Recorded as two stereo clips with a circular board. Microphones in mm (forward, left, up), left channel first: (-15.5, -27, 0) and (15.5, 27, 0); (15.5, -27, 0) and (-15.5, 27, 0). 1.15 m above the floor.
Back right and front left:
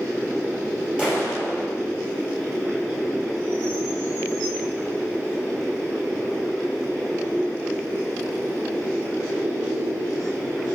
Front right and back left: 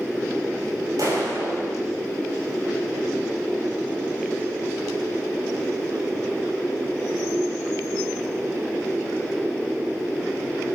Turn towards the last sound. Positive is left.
turn(degrees=130)